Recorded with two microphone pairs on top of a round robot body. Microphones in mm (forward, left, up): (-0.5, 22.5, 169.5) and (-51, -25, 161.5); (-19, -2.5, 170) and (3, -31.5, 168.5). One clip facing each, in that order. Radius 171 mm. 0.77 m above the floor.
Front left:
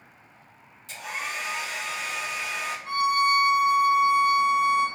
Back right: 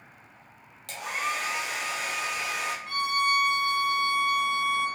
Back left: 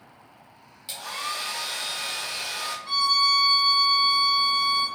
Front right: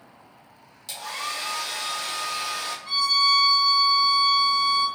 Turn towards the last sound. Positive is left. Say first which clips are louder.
# front left 5 dB, front right 1 dB
turn(degrees=40)